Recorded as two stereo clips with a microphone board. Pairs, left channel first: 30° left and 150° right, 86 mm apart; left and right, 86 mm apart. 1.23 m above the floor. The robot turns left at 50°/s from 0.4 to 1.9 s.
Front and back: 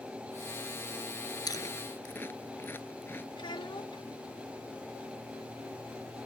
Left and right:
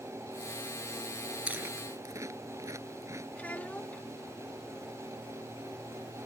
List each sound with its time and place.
1.5 s chewing: 15° right; by 3.2 s 35° right
3.4 s a child speaking: 20° left